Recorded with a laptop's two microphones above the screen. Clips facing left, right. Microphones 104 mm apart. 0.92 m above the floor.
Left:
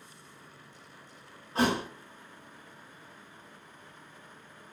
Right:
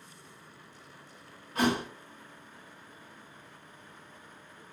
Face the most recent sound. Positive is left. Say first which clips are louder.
# even
turn(degrees=35)  # may be behind; listen again after turning